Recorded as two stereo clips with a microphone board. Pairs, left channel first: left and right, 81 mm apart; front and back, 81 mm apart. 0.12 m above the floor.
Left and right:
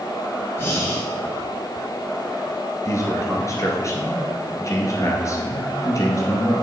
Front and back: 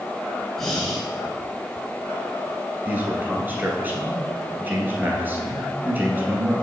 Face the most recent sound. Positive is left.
turn(degrees=120)